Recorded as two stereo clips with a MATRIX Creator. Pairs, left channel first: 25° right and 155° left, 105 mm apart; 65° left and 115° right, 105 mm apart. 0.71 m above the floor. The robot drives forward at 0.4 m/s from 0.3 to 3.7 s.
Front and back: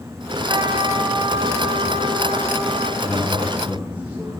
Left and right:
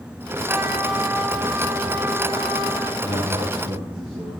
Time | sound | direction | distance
0.5 | a trumpet | 175° right | 1.0 m
3.0 | a man speaking | 130° right | 8.5 m